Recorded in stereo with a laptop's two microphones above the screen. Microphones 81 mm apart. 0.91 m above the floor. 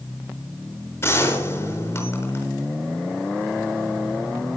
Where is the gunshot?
30° left (ahead or behind), 5 m.